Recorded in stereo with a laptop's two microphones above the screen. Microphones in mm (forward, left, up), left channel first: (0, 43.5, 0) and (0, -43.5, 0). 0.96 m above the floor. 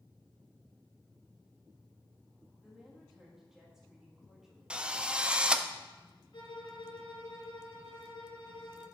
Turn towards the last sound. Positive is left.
turn(degrees=65)  # may be behind; listen again after turning